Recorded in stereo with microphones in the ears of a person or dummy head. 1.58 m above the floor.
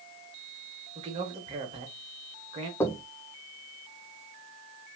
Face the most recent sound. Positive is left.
turn(degrees=15)  # may be behind; listen again after turning